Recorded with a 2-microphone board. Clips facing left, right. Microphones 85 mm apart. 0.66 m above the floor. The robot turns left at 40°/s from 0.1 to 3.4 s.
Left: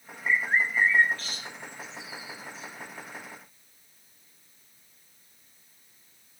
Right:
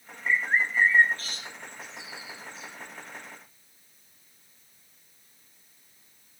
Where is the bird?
Centre (ahead or behind), 5.5 m; by 2.7 s 85° right, 5.5 m.